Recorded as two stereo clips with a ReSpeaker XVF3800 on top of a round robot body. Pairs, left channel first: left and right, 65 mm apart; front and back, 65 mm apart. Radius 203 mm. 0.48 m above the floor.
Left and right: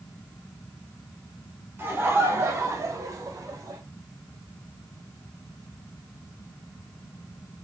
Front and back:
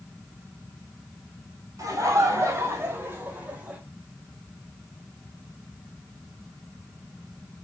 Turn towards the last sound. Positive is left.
turn(degrees=-110)